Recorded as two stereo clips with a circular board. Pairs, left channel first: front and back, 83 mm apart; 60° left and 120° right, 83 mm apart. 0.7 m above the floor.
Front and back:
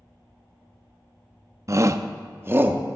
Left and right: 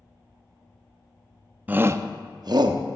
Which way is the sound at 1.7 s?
Straight behind.